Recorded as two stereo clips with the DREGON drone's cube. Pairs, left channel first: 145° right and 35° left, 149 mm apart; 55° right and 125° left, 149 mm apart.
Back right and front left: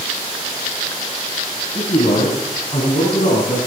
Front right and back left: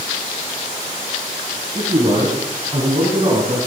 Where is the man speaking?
175° left, 7 m; by 3.7 s 175° right, 6 m.